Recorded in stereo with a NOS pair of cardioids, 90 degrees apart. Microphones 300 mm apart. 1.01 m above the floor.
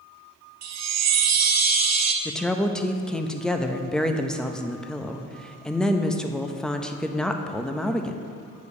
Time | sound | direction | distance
0.6 | a chime | 65° right | 0.7 m
2.2 | a woman speaking | straight ahead | 0.7 m